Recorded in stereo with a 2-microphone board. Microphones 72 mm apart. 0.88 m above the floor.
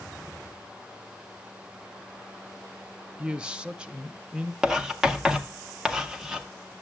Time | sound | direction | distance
3.2 | a man speaking | 15° right (ahead or behind) | 0.6 m
4.6 | writing | 10° right (ahead or behind) | 0.8 m